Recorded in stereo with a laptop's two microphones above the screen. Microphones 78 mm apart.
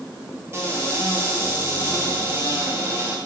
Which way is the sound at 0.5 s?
35° right (ahead or behind).